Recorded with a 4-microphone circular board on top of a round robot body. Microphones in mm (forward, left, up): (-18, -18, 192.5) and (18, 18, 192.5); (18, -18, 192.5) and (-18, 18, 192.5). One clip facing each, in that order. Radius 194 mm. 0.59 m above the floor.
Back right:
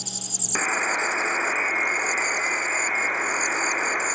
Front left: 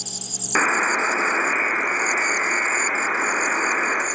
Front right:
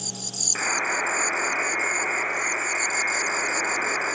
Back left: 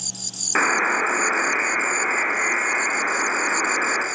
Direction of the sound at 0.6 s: 95° left.